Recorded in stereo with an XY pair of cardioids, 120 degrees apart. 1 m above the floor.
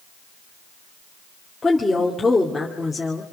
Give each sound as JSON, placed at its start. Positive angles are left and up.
{"t": 1.6, "sound": "a woman speaking", "azimuth_deg": 15, "distance_m": 2.5}